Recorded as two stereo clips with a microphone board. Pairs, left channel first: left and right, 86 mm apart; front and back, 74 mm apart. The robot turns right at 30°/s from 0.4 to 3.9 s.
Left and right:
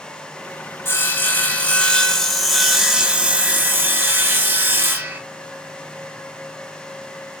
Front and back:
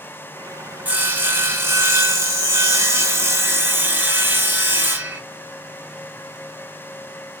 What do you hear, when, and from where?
0.8 s sawing: 130° left, 0.5 m; by 5.2 s 140° right, 0.5 m